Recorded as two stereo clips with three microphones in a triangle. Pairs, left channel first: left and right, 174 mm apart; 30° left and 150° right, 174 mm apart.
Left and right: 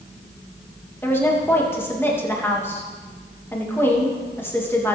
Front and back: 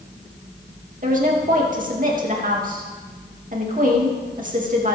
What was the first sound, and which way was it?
A woman speaking, 170° left.